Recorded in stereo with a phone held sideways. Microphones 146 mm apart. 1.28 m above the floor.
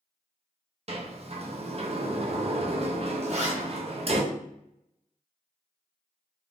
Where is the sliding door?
45° right (ahead or behind), 0.6 m.